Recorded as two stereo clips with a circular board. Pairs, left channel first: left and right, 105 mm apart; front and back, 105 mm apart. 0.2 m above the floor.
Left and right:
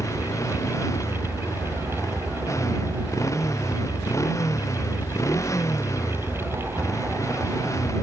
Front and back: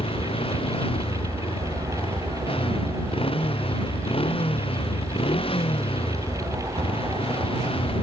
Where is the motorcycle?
30° left.